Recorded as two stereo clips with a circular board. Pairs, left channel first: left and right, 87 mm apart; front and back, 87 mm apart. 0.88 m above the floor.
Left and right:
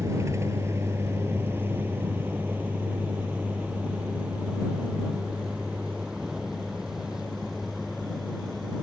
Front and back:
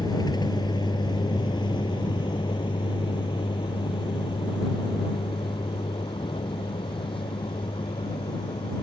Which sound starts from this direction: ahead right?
A vehicle, at 0.0 s.